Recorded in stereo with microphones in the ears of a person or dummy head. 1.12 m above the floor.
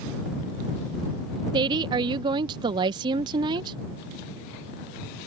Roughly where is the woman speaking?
Right.